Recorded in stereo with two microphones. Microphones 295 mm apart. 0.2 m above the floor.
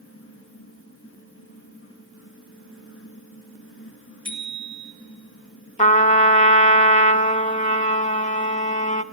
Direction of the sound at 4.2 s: 70° right (ahead or behind).